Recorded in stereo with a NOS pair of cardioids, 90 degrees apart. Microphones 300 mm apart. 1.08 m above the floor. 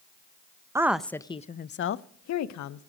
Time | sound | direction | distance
0.8 | a woman speaking | 10° right | 0.7 m